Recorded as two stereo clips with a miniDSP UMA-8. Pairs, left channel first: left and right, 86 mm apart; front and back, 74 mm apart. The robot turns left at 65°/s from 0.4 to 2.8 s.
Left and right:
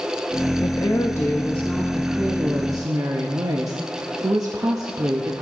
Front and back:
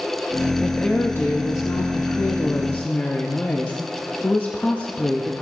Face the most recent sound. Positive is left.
turn(degrees=-60)